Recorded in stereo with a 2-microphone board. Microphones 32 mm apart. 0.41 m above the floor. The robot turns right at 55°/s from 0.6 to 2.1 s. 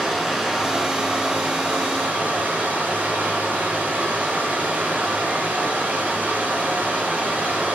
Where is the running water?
175° right, 3.5 m; by 7.8 s 90° right, 3.5 m.